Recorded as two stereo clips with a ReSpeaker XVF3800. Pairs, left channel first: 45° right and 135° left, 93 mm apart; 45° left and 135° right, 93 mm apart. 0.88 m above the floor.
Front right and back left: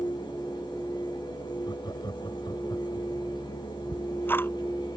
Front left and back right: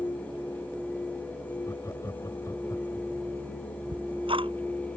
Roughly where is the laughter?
Ahead.